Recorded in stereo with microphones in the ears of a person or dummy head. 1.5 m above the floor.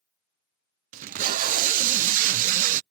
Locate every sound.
0.9 s tape being pulled: 45° right (ahead or behind)